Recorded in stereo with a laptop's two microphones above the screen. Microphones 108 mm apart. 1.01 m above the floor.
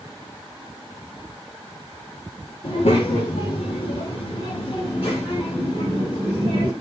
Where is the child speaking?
85° left, 1.1 m; by 6.7 s 45° left (ahead or behind), 2.5 m.